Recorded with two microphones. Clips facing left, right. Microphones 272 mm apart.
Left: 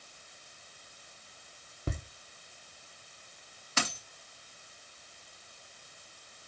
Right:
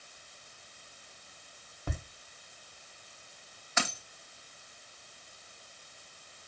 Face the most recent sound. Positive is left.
turn(degrees=35)  # may be behind; listen again after turning